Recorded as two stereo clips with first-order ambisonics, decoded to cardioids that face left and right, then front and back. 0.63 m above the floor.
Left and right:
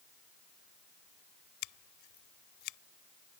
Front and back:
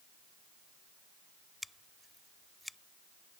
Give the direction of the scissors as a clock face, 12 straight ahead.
9 o'clock.